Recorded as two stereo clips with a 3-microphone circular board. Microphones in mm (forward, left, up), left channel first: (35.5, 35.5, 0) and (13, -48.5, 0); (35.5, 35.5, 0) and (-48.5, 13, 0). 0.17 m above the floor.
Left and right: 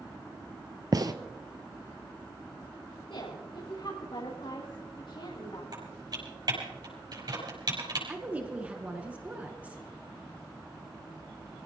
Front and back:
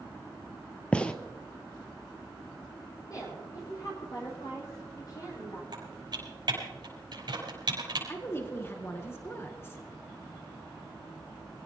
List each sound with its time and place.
0.9 s a gunshot: 60° right, 0.9 m
3.1 s a woman speaking: 60° left, 7.5 m
5.7 s typing on a keyboard: 135° right, 6 m
8.1 s a woman speaking: 35° right, 1.7 m